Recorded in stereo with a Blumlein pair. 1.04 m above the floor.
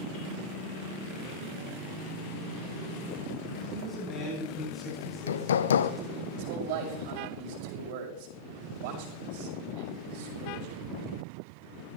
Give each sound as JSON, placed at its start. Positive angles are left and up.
{"t": 3.7, "sound": "a man speaking", "azimuth_deg": 15, "distance_m": 8.5}
{"t": 5.0, "sound": "hammering", "azimuth_deg": 65, "distance_m": 0.6}
{"t": 6.3, "sound": "a man speaking", "azimuth_deg": -45, "distance_m": 6.0}